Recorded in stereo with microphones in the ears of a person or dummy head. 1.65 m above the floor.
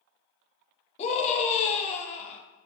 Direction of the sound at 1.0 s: 35° left (ahead or behind).